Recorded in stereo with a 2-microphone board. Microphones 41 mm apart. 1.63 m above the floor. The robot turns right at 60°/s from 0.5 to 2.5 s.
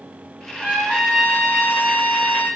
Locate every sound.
0.6 s a trumpet: 5° left (ahead or behind), 1.5 m; by 2.5 s 15° left (ahead or behind), 1.5 m